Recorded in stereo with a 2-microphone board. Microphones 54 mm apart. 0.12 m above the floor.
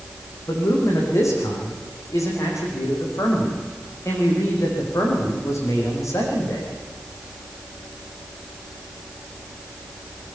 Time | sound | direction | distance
0.5 | a man speaking | 65° left (ahead or behind) | 8 m